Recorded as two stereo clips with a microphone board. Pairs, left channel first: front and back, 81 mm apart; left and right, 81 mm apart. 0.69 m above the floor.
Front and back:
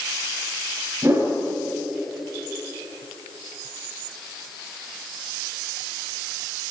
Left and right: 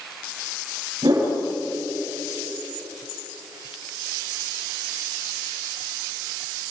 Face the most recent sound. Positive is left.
turn(degrees=-120)